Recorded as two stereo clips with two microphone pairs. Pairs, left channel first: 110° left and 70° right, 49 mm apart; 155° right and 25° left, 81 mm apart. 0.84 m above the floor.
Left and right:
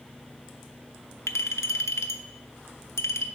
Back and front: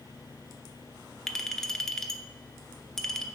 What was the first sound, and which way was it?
A clink, 120° left.